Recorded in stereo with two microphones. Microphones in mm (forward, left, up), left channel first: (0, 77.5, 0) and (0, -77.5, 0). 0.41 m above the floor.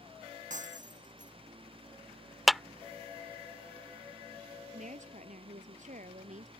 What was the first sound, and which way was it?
Breaking glass, 55° right (ahead or behind).